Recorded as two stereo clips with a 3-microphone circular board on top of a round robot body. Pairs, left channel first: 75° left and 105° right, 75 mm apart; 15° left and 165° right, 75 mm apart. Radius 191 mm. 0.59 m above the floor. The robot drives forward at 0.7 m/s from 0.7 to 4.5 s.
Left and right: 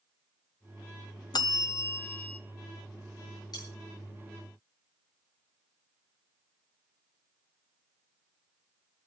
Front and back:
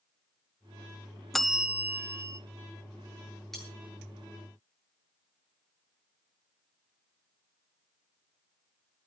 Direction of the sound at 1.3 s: 100° left.